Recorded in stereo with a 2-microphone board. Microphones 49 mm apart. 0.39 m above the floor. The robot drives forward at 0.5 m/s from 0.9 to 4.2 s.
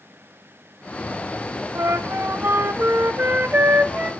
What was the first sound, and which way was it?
A flute, 65° right (ahead or behind).